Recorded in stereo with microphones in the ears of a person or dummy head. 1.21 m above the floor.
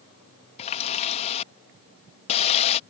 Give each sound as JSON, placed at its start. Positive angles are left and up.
{"t": 0.6, "sound": "a running tap", "side_deg": 30}